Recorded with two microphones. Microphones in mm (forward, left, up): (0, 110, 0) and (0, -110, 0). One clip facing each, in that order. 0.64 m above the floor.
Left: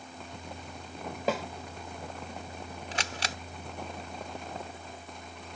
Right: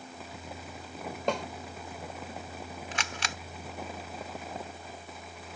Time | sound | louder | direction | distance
1.3 | a snare drum | left 1 dB | 5° left (ahead or behind) | ?
2.9 | a camera shutter | left 3 dB | 40° left (ahead or behind) | ?